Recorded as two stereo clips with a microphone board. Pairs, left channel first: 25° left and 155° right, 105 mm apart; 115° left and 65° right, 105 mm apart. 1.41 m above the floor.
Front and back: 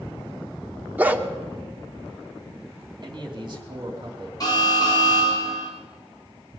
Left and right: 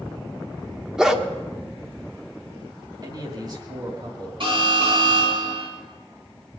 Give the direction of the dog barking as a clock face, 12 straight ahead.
5 o'clock.